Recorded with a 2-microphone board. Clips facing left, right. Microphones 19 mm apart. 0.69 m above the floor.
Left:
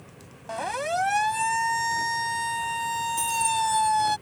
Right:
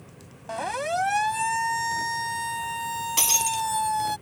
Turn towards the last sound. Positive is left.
turn(degrees=-90)